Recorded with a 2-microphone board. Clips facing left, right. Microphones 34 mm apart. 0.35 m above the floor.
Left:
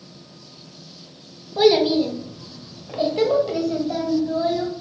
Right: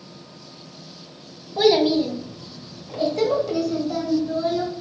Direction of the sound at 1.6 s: 10° left (ahead or behind).